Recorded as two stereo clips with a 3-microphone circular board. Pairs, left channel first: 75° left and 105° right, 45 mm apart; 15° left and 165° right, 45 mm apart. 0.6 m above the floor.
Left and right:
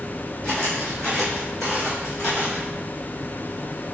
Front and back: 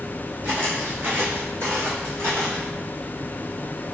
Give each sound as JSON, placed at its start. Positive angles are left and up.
{"t": 0.4, "sound": "footsteps", "azimuth_deg": 145, "distance_m": 2.0}